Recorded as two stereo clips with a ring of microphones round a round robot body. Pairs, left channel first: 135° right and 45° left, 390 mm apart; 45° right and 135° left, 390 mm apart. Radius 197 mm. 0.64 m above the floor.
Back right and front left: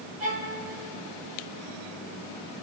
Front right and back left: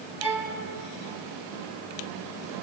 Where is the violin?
50° left, 3 m.